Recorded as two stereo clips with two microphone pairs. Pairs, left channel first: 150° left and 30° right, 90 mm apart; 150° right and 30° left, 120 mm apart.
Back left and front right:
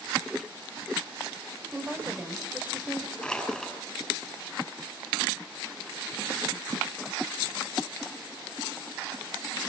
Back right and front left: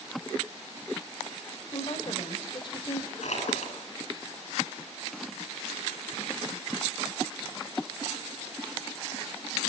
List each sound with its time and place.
1.7 s a woman speaking: 100° right, 4.5 m
3.2 s crushing: 130° right, 9 m